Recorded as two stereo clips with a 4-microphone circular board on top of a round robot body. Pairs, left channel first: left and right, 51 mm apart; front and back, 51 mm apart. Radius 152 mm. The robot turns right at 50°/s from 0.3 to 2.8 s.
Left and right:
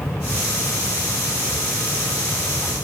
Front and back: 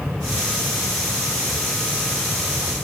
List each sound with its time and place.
Only background noise.